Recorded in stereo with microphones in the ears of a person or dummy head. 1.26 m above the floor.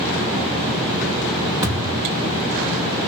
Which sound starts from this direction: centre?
A thud, at 1.6 s.